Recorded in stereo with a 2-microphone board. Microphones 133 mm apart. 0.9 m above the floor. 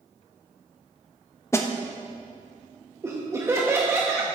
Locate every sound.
1.5 s a snare drum: 20° left (ahead or behind), 0.8 m
3.0 s laughter: 20° right (ahead or behind), 1.0 m